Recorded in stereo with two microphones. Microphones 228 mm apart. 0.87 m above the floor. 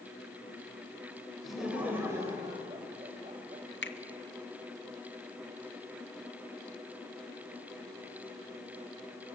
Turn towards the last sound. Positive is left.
turn(degrees=60)  # may be behind; listen again after turning